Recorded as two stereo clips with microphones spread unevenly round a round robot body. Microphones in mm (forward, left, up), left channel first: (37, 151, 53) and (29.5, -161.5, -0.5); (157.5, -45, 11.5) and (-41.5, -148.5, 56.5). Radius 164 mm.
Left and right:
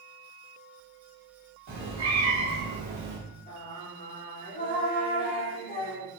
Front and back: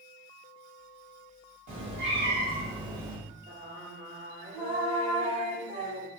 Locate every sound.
1.7 s a cat meowing: 135° right, 1.3 m; by 3.2 s 100° right, 0.6 m
3.5 s singing: 145° left, 0.9 m